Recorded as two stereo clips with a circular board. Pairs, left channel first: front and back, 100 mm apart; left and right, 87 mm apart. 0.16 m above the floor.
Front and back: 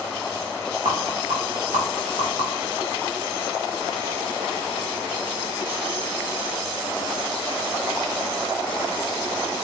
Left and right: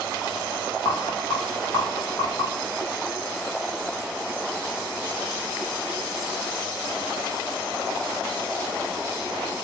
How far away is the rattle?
About 3 m.